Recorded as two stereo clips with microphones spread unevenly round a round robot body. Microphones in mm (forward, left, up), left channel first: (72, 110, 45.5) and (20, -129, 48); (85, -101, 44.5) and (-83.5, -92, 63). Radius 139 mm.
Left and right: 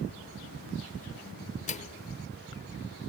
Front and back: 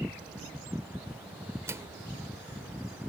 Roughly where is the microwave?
Left.